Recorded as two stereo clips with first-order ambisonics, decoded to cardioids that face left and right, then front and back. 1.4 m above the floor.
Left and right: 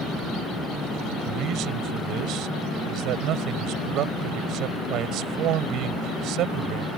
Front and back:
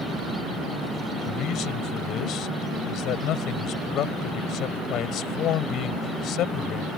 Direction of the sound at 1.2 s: 50° right.